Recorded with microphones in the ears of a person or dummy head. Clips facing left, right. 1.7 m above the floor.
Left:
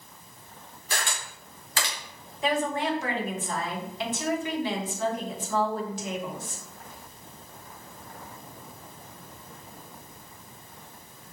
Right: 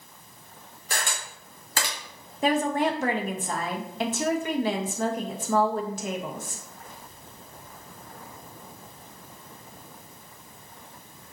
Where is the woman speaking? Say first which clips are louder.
Right 3 dB; 45° right (ahead or behind), 1.0 m.